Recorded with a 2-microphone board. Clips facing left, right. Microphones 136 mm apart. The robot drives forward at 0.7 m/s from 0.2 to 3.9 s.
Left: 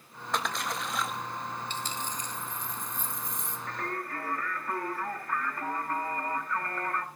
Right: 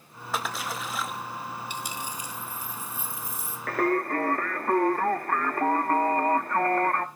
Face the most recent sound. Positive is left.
turn(degrees=-55)  # may be behind; listen again after turning